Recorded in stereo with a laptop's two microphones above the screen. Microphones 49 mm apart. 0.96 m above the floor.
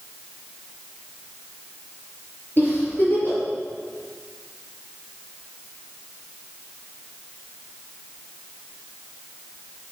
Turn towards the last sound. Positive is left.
turn(degrees=40)  # may be behind; listen again after turning